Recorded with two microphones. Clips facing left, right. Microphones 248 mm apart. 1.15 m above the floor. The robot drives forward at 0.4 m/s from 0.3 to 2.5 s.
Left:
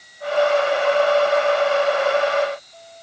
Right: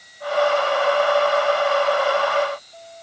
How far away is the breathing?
No breathing in this recording.